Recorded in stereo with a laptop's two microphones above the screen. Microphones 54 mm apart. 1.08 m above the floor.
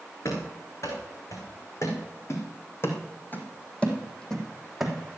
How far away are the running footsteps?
About 5 m.